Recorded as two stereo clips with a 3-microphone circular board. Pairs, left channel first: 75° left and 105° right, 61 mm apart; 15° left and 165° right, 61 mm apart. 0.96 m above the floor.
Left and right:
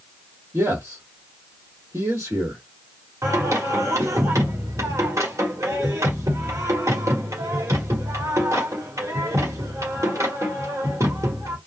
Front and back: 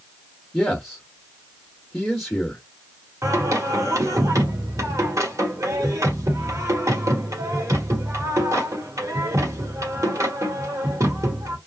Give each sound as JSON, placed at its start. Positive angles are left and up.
{"t": 0.5, "sound": "a man speaking", "azimuth_deg": -65, "distance_m": 1.2}
{"t": 3.2, "sound": "singing", "azimuth_deg": -140, "distance_m": 1.4}